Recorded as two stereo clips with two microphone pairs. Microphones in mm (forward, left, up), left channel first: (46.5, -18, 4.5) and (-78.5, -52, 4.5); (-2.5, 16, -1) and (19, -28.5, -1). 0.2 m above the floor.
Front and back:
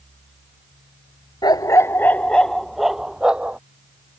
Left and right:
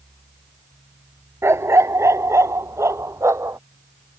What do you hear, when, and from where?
1.4 s a dog barking: 40° right; by 3.6 s 85° right